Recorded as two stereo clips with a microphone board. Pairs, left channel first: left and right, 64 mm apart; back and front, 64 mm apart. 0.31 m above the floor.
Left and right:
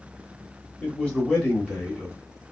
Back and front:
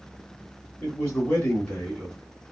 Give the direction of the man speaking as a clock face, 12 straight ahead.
7 o'clock.